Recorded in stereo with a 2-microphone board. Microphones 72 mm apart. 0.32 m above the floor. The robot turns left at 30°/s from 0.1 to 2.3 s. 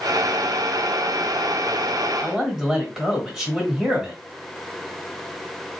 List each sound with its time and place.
2.2 s a man speaking: 10° right (ahead or behind), 1.6 m